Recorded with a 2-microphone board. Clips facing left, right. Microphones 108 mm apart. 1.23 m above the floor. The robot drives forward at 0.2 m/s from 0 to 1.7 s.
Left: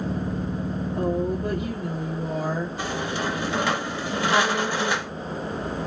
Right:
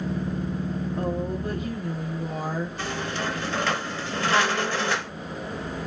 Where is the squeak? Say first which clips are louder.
Left 2 dB; 15° left (ahead or behind), 0.6 m.